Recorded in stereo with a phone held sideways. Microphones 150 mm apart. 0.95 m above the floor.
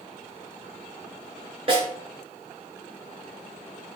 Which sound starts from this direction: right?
A snare drum, at 1.7 s.